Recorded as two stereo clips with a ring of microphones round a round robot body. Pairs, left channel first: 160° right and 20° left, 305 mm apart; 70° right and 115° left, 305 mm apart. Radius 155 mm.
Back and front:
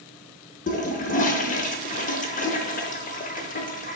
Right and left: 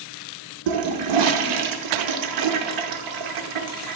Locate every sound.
0.7 s a toilet flushing: 135° left, 0.6 m